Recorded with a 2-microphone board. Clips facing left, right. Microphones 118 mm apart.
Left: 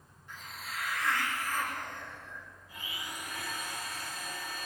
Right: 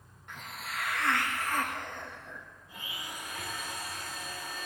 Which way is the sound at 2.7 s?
25° right (ahead or behind).